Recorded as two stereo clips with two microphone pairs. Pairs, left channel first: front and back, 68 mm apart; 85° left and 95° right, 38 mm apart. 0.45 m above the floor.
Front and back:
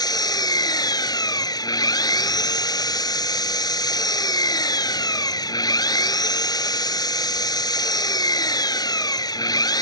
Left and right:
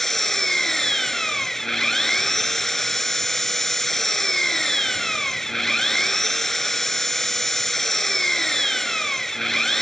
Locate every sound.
0.0 s an engine running: straight ahead